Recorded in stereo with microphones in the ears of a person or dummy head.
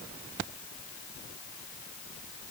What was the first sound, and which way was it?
Only background noise.